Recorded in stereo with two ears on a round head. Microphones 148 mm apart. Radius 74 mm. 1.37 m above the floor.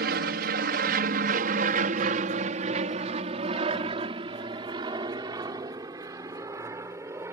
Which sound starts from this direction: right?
An aircraft, at 0.0 s.